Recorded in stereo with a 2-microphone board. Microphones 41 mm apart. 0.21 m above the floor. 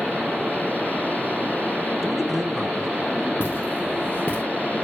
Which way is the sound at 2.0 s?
Centre (ahead or behind).